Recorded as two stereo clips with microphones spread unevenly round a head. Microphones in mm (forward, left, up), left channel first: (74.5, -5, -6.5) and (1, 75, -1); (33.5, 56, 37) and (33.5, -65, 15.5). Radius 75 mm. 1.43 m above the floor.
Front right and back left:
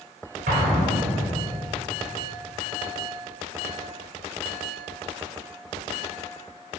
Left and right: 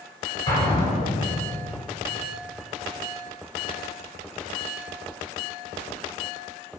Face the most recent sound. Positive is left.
turn(degrees=150)